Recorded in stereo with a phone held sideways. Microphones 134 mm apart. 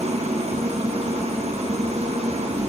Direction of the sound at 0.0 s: 60° right (ahead or behind).